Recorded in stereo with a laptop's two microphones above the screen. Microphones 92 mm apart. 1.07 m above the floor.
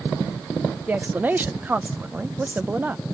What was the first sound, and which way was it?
A woman speaking, 20° right (ahead or behind).